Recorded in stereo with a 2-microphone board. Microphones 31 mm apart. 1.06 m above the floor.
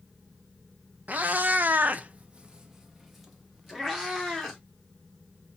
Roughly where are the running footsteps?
I don't hear running footsteps.